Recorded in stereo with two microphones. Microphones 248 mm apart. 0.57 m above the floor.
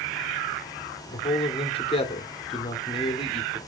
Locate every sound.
1.1 s a man speaking: 20° left (ahead or behind), 1.4 m